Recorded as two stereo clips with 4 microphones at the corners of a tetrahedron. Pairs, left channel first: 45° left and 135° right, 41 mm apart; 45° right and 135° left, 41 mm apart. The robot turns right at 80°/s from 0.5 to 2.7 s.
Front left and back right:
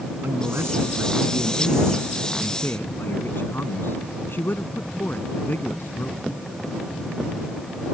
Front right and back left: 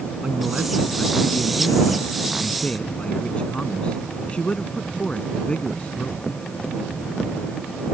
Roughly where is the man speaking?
Behind right.